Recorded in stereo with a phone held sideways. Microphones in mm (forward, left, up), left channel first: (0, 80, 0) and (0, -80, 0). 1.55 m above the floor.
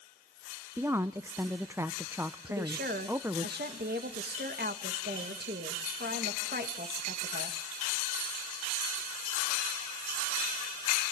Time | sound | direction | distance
0.8 | a woman speaking | 15° right (ahead or behind) | 0.5 m
2.5 | a woman speaking | 75° right (ahead or behind) | 2 m